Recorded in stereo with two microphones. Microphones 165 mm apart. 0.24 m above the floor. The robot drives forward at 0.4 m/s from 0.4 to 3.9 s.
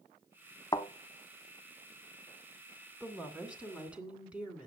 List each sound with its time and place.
0.7 s a thud: 25° left (ahead or behind), 0.8 m
3.0 s a woman speaking: 10° right (ahead or behind), 2 m; by 4.7 s 5° right (ahead or behind), 2.5 m